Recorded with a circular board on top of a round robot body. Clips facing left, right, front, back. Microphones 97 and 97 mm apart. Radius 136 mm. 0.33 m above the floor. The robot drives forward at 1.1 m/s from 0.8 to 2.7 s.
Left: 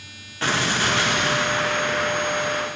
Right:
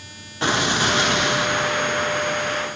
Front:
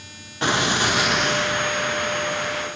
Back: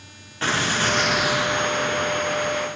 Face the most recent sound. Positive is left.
turn(degrees=-165)